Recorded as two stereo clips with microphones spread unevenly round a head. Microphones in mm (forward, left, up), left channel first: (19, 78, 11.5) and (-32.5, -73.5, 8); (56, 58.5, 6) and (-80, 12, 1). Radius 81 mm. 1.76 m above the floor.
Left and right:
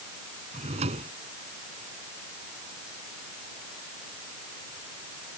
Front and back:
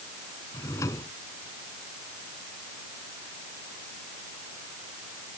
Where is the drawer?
55° right.